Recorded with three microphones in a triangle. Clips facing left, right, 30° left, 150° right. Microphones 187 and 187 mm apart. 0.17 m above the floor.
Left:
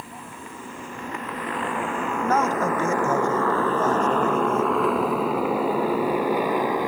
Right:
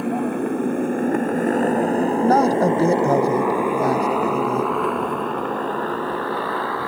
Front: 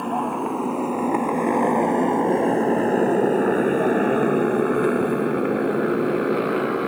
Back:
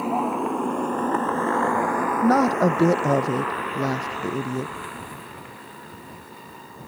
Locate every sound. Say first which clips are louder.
0.0 s a motorcycle: right 19 dB, even; 65° right; by 6.9 s 15° left
2.2 s a woman speaking: right 5 dB, even; 145° right